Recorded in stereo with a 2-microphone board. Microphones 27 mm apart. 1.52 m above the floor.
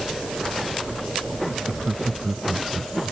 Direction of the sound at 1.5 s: 25° right (ahead or behind).